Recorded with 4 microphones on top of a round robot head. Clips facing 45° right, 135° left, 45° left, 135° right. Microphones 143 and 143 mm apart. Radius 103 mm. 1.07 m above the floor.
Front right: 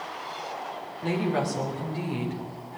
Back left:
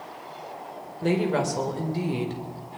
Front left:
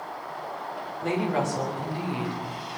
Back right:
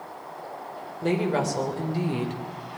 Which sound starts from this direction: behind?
A woman speaking, at 1.0 s.